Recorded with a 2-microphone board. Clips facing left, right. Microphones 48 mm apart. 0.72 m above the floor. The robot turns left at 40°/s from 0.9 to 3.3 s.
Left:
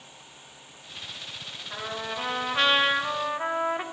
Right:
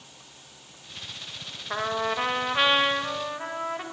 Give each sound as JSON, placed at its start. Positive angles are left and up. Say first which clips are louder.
{"t": 1.7, "sound": "a trumpet", "louder": "right 7 dB", "azimuth_deg": -135, "distance_m": 1.0}